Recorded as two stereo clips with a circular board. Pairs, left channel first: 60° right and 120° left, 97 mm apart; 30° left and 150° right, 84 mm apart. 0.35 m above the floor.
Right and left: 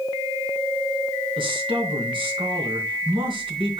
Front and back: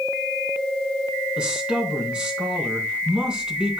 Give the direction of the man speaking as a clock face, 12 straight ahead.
8 o'clock.